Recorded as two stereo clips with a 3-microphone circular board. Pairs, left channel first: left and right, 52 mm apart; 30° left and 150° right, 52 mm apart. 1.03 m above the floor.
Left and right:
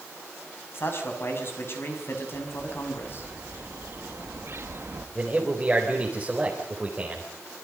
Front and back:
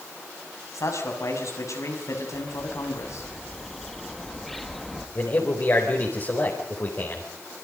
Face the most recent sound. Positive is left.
turn(degrees=-15)